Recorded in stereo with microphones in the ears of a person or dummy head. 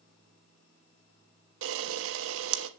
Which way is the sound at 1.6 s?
70° right (ahead or behind).